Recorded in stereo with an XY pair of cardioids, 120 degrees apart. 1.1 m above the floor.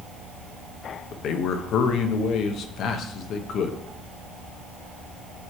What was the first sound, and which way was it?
A man speaking, 65° left.